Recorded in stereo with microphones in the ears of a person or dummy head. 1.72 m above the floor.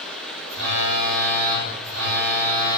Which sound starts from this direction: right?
A phone buzzing, at 0.5 s.